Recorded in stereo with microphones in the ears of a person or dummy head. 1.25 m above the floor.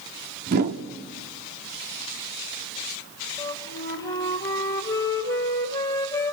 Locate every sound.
0.5 s a whoosh: 55° right (ahead or behind), 1.3 m
3.4 s a flute: 20° left (ahead or behind), 2 m